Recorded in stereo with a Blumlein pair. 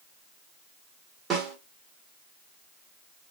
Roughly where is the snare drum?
Ahead.